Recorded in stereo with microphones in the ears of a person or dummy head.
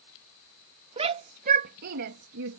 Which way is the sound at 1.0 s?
30° right (ahead or behind).